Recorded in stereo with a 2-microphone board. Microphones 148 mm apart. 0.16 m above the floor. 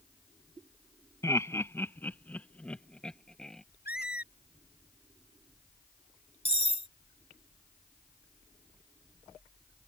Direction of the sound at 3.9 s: 90° left.